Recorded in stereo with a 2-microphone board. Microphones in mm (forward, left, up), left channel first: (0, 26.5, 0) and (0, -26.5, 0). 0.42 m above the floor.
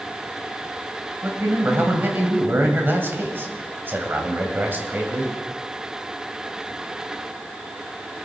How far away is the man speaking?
About 2.5 m.